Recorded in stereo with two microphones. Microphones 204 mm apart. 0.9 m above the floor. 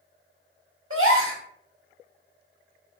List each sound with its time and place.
0.9 s a gasp: 85° right, 0.6 m